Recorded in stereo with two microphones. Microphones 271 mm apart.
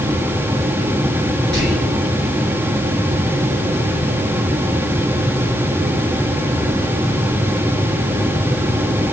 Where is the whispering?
45° right (ahead or behind), 4.5 m.